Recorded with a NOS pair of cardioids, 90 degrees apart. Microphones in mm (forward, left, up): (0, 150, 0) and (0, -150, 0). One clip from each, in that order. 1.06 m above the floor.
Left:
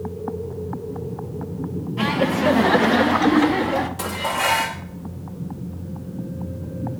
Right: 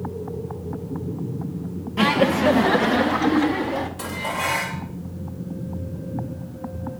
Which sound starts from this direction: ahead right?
Laughter, at 2.0 s.